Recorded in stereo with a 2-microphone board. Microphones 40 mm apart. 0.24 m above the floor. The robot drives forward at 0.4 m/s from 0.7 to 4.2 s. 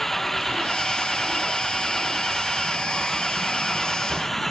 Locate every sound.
0.0 s an engine running: 5° left (ahead or behind)